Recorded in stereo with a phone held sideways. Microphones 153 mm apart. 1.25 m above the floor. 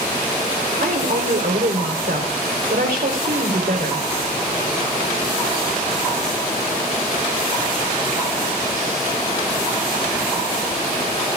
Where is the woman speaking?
75° right (ahead or behind), 3.5 m.